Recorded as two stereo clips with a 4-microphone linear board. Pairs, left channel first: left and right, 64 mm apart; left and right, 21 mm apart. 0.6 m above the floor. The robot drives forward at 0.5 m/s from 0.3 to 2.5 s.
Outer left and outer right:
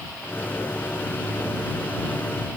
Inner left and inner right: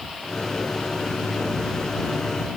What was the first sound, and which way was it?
Only background noise.